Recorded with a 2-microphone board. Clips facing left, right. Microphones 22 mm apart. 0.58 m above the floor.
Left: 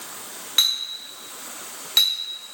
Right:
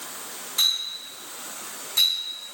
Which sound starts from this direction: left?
A clink, at 0.6 s.